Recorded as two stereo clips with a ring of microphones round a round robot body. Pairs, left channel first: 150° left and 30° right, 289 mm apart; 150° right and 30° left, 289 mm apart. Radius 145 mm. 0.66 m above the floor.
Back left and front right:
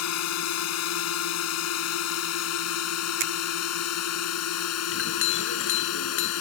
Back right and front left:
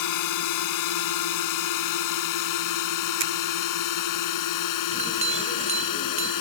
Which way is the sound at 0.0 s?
175° right.